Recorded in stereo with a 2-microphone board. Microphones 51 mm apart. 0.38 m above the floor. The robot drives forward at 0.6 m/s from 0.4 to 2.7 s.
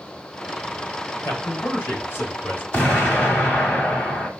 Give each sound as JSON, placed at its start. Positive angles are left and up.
{"t": 1.2, "sound": "a man speaking", "side_deg": 50, "distance_m": 2.0}
{"t": 2.7, "sound": "an explosion", "side_deg": 20, "distance_m": 1.4}